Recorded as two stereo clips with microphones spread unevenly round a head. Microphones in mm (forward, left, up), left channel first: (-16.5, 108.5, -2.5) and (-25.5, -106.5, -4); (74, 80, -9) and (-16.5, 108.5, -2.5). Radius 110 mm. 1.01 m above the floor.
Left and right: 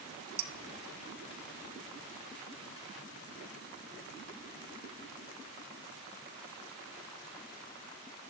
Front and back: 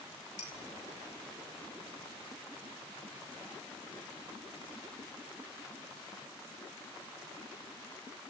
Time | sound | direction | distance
0.4 | dishes clattering | 60° right | 2.5 m